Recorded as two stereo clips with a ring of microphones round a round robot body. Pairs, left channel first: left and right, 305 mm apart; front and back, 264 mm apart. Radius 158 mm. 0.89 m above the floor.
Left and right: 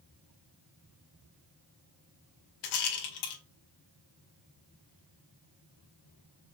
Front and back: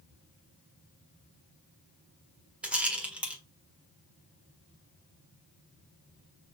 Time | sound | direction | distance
2.6 | a rattle | 95° left | 1.6 m